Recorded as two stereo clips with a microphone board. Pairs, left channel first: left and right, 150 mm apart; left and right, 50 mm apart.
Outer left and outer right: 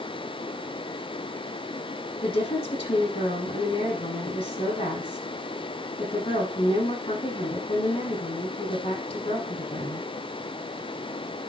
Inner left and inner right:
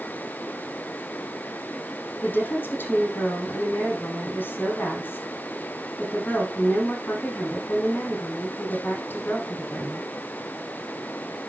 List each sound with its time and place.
2.2 s a woman speaking: 35° left (ahead or behind), 5.5 m